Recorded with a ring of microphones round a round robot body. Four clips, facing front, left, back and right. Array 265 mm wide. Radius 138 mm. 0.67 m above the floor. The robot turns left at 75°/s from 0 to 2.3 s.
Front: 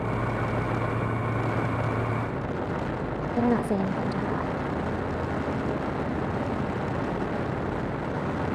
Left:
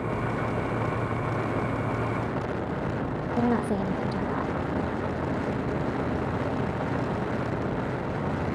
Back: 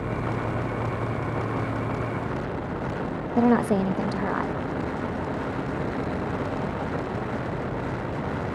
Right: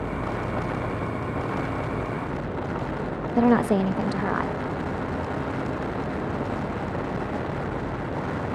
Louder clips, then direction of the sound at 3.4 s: Right 6 dB, back 4 dB; 125° right.